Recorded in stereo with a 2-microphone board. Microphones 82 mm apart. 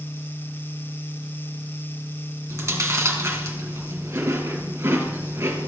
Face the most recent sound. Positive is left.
turn(degrees=-30)  # may be behind; listen again after turning